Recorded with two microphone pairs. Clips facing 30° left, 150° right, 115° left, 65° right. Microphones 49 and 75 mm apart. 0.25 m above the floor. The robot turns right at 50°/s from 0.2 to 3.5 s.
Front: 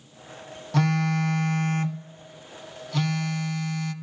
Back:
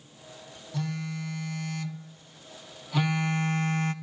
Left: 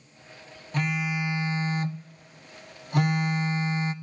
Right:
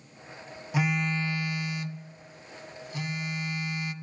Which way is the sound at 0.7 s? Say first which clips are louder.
Front 10 dB, even; 25° left.